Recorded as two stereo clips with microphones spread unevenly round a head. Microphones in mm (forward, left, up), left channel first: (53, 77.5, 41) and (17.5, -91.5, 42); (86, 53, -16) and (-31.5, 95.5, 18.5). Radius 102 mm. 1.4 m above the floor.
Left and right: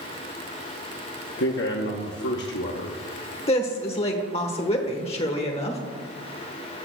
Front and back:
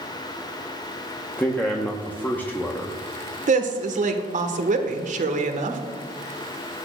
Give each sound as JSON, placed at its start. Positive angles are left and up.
{"t": 1.4, "sound": "a man speaking", "azimuth_deg": 60, "distance_m": 1.0}
{"t": 3.5, "sound": "a woman speaking", "azimuth_deg": 135, "distance_m": 1.3}